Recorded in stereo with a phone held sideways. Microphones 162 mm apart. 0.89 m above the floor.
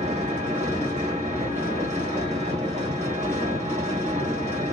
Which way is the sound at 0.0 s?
45° right (ahead or behind).